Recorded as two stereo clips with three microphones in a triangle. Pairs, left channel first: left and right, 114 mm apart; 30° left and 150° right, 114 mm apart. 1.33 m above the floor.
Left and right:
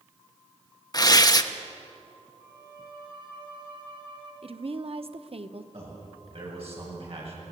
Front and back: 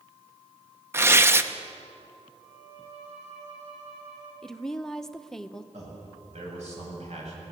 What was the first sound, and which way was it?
Tearing paper, 145° left.